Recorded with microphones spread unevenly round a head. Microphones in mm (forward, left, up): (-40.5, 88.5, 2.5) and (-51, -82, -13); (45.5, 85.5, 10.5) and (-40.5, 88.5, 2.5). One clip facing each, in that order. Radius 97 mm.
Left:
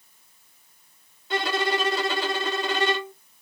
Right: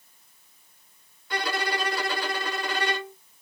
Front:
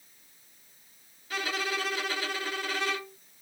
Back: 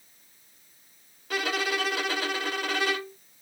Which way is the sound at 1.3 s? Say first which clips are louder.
Left 4 dB, back 4 dB; 155° left.